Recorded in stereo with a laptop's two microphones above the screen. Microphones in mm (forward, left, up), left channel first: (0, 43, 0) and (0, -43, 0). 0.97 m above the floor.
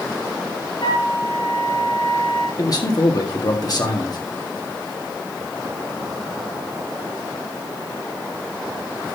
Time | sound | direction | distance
0.8 | a flute | 60° left (ahead or behind) | 2.5 m
2.6 | a man speaking | 50° left (ahead or behind) | 1.9 m